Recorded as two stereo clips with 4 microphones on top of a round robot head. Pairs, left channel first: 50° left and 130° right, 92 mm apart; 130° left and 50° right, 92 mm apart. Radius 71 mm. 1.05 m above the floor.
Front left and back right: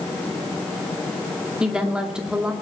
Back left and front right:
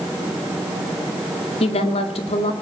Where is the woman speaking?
145° left, 2 m.